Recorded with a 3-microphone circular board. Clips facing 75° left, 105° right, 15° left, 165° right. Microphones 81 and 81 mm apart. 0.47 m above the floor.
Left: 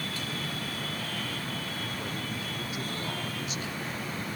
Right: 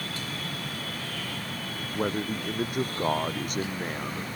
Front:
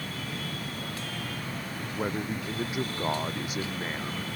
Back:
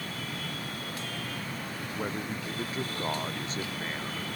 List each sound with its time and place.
1.9 s a man speaking: 65° right